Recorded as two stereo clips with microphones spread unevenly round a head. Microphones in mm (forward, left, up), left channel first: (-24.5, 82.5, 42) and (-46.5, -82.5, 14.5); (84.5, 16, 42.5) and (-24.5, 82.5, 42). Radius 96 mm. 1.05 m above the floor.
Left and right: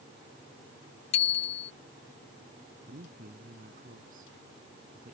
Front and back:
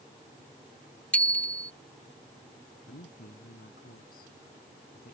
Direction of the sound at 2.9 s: 50° right.